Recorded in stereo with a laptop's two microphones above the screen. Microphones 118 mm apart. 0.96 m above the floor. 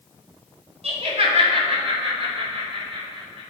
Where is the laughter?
60° right (ahead or behind), 2 m; by 3.4 s 50° right (ahead or behind), 4 m.